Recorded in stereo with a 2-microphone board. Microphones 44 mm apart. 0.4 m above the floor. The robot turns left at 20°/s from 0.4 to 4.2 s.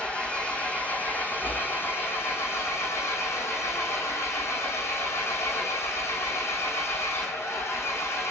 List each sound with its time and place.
0.0 s an engine running: 150° left, 4.5 m; by 8.3 s 75° left, 4.5 m